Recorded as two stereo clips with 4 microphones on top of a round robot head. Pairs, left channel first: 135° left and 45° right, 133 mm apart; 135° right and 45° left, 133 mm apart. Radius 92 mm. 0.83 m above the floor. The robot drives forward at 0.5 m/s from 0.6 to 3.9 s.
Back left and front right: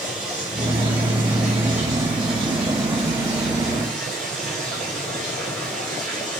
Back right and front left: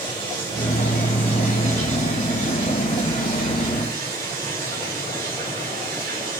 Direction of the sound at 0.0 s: 35° left.